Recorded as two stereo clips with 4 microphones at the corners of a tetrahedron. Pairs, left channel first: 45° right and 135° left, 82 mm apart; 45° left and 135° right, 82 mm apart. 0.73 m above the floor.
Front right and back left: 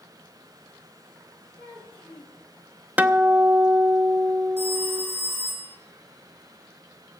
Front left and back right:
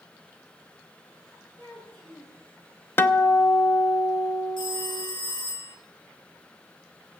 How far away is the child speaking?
About 8.5 m.